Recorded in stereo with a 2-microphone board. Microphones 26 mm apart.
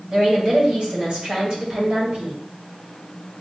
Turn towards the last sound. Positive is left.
turn(degrees=-40)  # may be behind; listen again after turning